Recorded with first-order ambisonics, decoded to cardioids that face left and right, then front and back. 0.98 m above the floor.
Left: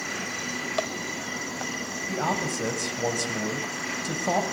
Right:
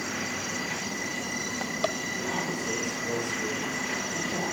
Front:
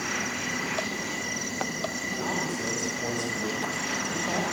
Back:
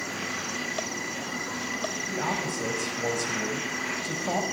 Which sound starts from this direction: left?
A man speaking, at 2.1 s.